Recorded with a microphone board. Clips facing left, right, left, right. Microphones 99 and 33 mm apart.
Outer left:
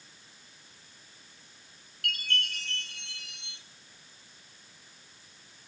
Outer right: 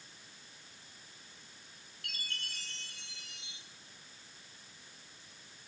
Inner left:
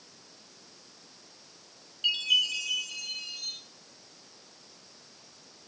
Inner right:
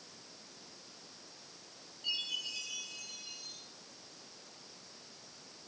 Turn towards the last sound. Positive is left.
turn(degrees=75)  # may be behind; listen again after turning